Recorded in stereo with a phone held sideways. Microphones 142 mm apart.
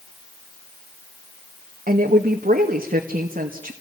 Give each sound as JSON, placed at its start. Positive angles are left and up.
{"t": 1.9, "sound": "a woman speaking", "side_deg": -70, "distance_m": 2.0}